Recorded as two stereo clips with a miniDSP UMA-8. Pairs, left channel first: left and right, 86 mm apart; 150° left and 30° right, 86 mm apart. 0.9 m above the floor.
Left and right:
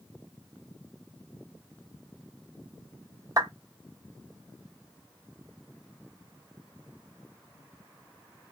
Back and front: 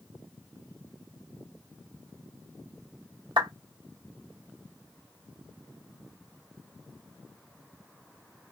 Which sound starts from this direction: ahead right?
A clap, at 3.4 s.